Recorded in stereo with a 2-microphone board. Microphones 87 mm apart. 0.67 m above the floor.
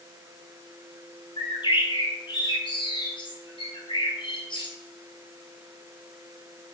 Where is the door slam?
No door slam in this recording.